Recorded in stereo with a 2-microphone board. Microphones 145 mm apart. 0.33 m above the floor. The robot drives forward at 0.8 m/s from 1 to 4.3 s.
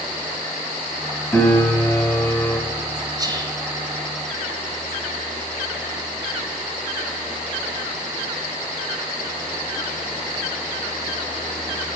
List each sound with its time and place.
1.3 s a piano: 10° left (ahead or behind), 1.6 m; by 2.6 s 15° left (ahead or behind), 0.9 m
3.2 s whispering: 25° right (ahead or behind), 1.4 m; by 3.6 s 30° right (ahead or behind), 1.2 m